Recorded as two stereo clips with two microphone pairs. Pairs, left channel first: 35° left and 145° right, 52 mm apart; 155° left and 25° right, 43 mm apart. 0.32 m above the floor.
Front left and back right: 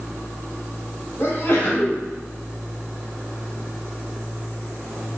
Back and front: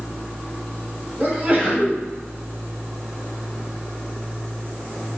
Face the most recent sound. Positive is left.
turn(degrees=15)